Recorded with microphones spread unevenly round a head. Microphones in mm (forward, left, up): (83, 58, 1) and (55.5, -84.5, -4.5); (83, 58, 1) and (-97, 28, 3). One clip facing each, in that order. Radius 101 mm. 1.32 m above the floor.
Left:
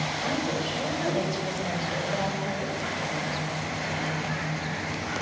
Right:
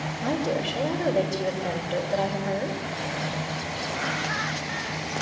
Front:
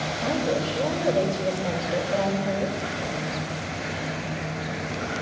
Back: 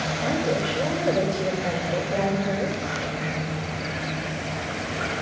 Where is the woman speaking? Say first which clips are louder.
Right 4 dB, even; 90° right, 5 m.